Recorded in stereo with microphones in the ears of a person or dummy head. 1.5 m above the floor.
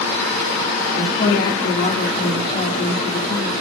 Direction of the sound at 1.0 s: 30° left (ahead or behind).